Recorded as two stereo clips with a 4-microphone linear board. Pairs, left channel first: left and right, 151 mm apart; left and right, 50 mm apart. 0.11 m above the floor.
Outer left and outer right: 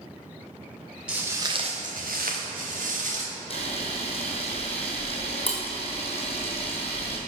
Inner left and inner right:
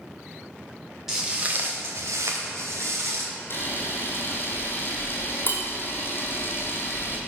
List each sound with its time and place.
1.1 s footsteps: 5° right (ahead or behind), 1.4 m; by 3.3 s 60° right (ahead or behind), 2.5 m
3.5 s a camera shutter: 45° left (ahead or behind), 1.3 m